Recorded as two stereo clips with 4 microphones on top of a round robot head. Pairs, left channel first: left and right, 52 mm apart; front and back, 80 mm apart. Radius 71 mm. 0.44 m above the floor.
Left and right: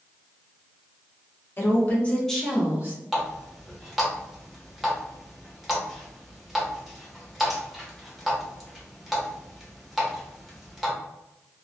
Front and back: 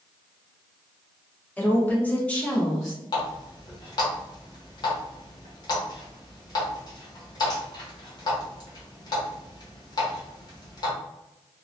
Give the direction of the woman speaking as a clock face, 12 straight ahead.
10 o'clock.